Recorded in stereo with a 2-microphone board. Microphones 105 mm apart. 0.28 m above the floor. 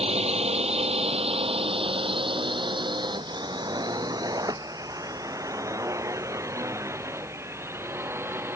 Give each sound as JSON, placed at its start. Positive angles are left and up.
{"t": 0.0, "sound": "a drone", "side_deg": -80}